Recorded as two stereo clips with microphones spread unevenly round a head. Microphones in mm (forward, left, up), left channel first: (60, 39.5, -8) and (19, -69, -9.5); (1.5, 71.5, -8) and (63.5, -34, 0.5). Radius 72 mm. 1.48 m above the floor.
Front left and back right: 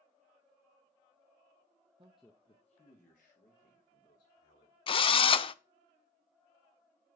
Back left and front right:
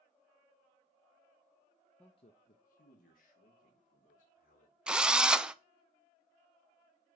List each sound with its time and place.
2.0 s a man speaking: 155° right, 0.5 m; by 4.8 s 105° left, 4 m
4.9 s a drill: 25° left, 0.5 m